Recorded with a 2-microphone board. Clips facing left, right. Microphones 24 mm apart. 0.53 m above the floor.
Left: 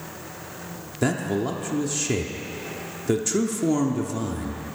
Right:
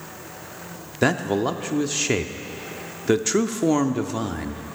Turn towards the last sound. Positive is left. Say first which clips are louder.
# right 3 dB
turn(degrees=-25)  # may be behind; listen again after turning